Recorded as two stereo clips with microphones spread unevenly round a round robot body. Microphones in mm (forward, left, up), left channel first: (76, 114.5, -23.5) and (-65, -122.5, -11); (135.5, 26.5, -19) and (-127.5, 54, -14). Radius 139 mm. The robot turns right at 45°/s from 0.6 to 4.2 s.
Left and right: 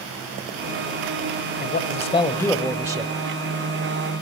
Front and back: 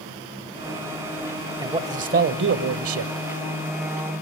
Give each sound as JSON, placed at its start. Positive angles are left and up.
{"t": 1.6, "sound": "a man speaking", "azimuth_deg": 100, "distance_m": 1.3}